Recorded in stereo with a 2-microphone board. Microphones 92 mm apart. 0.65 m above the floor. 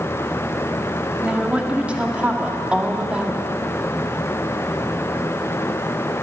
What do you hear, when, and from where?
1.2 s a woman speaking: 10° right (ahead or behind), 1.1 m